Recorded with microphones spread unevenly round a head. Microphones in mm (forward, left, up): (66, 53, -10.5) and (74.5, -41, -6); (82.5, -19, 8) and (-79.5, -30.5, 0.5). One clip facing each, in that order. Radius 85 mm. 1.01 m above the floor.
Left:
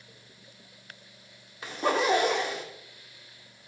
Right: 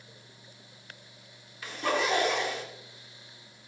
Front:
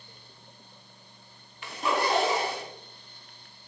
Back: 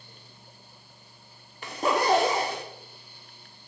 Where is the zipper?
150° left, 0.7 m.